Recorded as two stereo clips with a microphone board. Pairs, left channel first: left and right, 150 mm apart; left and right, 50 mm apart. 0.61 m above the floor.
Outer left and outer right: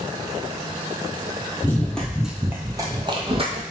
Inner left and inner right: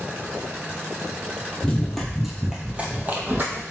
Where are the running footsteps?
15° left (ahead or behind), 0.7 m; by 3.6 s 45° right (ahead or behind), 0.8 m.